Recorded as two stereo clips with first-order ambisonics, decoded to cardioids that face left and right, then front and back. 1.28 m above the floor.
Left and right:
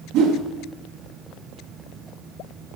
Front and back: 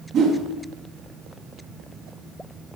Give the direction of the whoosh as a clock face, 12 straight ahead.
4 o'clock.